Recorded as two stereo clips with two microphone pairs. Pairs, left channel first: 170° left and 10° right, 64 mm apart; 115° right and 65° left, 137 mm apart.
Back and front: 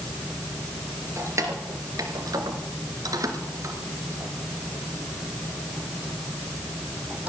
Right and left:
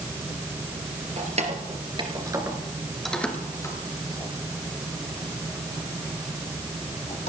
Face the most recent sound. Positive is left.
turn(degrees=-85)